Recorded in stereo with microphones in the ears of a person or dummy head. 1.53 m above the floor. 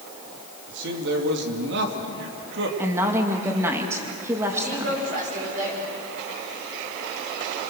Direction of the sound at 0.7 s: 70° right (ahead or behind).